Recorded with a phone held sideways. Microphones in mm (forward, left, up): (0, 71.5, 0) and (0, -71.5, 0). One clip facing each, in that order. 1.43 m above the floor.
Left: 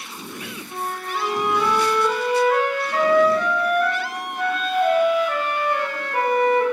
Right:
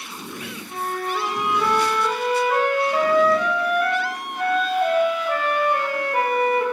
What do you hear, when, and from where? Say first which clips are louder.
0.7 s a flute: right 2 dB; 10° right (ahead or behind), 2.5 m